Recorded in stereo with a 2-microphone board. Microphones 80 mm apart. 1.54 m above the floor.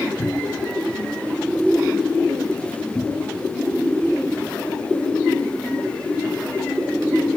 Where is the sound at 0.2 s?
65° left (ahead or behind).